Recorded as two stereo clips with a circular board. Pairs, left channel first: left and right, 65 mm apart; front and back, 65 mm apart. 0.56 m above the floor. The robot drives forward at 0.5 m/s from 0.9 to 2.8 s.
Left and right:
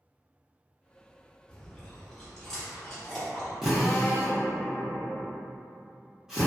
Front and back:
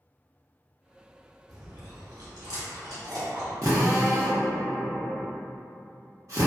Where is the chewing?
165° left, 0.7 m; by 3.5 s 175° left, 1.3 m.